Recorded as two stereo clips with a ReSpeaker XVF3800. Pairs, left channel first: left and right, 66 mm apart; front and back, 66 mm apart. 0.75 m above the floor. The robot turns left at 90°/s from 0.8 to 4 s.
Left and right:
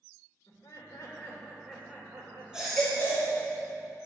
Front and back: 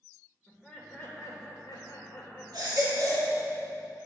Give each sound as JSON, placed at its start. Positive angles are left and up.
{"t": 0.5, "sound": "laughter", "azimuth_deg": 75, "distance_m": 2.5}
{"t": 2.5, "sound": "a baby crying", "azimuth_deg": -165, "distance_m": 2.5}